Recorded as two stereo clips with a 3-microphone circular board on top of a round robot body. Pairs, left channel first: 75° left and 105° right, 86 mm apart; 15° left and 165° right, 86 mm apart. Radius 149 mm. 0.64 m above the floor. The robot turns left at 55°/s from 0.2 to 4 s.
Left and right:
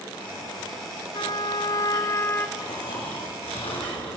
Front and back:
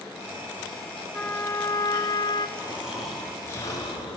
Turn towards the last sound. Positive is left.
turn(degrees=50)